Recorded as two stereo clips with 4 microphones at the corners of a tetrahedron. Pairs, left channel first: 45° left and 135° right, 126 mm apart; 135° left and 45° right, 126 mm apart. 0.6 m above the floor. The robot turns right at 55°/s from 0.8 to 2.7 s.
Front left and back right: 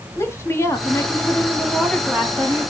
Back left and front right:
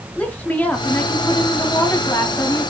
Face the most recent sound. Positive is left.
turn(degrees=180)